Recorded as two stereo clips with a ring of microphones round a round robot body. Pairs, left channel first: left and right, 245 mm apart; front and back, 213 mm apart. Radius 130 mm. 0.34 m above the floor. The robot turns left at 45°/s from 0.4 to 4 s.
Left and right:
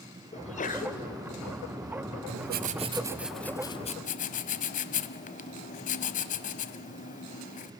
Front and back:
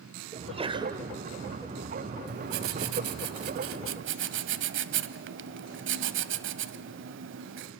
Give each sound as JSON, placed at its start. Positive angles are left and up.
{"t": 0.3, "sound": "a sneeze", "azimuth_deg": 140, "distance_m": 1.8}
{"t": 2.3, "sound": "writing", "azimuth_deg": -130, "distance_m": 0.8}